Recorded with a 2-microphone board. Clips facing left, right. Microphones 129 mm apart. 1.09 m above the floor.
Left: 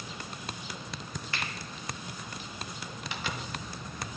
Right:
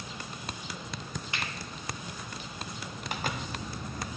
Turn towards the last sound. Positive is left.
turn(degrees=-45)  # may be behind; listen again after turning